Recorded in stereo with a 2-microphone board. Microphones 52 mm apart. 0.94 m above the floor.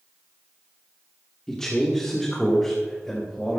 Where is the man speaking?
10° left (ahead or behind), 1.8 m.